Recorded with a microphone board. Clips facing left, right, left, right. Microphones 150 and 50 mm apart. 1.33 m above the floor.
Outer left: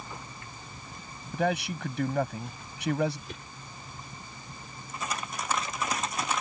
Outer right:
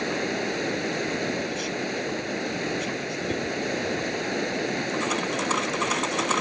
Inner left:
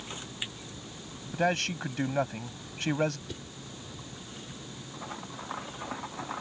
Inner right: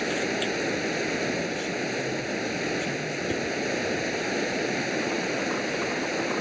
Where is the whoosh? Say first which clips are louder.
Outer right 16 dB, inner right 14 dB; 40° right (ahead or behind).